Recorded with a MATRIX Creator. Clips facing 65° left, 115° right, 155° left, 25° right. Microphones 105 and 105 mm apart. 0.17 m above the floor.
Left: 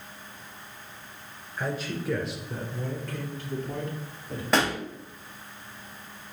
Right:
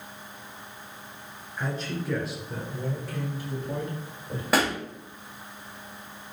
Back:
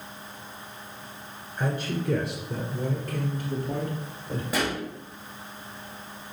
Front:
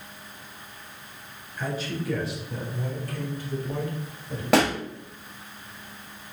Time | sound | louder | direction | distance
1.6 | a man speaking | even, back 2 dB | 150° left | 2 m
4.5 | a pop | even, front 8 dB | 30° right | 1.4 m